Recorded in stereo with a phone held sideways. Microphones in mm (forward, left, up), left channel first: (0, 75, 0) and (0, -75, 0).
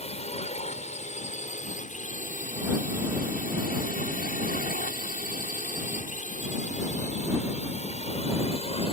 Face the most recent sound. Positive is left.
turn(degrees=40)  # may be behind; listen again after turning